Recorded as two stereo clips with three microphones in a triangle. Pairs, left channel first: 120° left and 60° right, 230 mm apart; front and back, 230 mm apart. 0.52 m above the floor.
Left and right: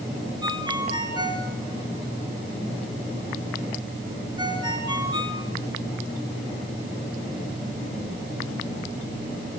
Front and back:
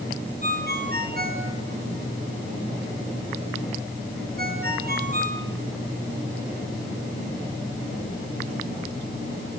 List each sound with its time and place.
0.4 s a ringtone: 130° right, 4 m